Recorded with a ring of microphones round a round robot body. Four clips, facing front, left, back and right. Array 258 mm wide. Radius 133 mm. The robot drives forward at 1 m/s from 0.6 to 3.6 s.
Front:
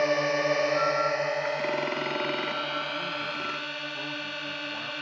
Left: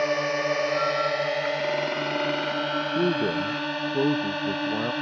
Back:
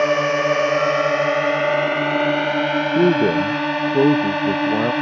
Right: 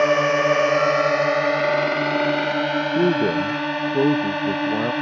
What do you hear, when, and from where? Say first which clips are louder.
0.0 s a drone: right 7 dB, back 7 dB; 135° right; by 5.0 s 160° right
3.0 s a man speaking: right 5 dB, back 18 dB; 160° right